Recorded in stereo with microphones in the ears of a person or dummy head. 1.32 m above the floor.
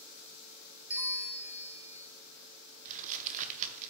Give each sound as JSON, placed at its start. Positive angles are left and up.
{"t": 0.9, "sound": "a bell", "side_deg": -5, "distance_m": 0.6}
{"t": 2.9, "sound": "crumpling", "side_deg": -40, "distance_m": 0.7}